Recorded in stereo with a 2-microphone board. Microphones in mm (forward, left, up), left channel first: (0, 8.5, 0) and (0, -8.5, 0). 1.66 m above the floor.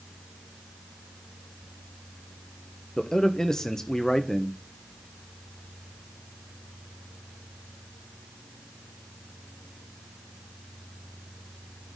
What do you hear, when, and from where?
3.0 s a man speaking: 30° left (ahead or behind), 1.2 m